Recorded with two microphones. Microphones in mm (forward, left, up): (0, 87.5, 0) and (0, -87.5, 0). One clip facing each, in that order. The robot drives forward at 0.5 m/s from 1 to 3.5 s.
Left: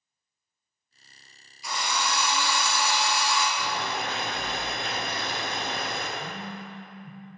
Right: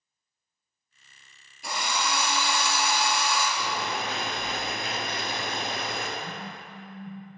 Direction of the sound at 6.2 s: 15° left (ahead or behind).